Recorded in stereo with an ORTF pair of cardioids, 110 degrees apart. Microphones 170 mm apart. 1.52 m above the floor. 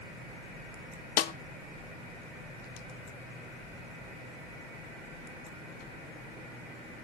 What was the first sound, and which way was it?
A snare drum, 60° left.